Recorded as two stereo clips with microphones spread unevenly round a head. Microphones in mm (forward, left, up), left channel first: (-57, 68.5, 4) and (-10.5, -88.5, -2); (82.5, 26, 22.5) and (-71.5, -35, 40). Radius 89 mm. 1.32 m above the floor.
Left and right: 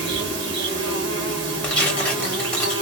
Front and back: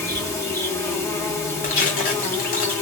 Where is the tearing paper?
30° left, 1.2 m.